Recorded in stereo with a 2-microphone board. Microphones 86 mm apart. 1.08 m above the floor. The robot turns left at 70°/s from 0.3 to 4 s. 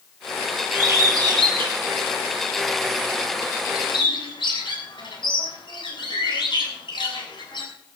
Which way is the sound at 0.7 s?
25° right (ahead or behind).